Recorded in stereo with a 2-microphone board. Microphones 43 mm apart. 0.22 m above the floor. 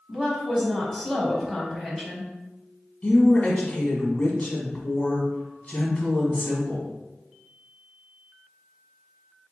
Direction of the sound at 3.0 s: 35° left (ahead or behind).